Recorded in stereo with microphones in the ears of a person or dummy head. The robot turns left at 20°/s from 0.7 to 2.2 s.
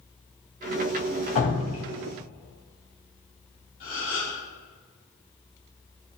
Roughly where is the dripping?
Left.